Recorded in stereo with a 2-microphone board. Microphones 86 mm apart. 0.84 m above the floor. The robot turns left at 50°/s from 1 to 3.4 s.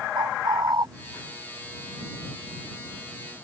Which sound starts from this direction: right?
A bird, at 0.1 s.